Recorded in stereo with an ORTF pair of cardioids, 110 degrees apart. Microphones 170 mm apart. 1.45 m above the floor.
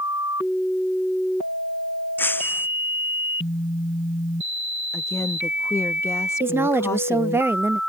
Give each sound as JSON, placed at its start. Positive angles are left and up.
{"t": 2.2, "sound": "breaking glass", "azimuth_deg": 10}
{"t": 4.9, "sound": "a woman speaking", "azimuth_deg": 15}
{"t": 6.4, "sound": "a woman speaking", "azimuth_deg": -15}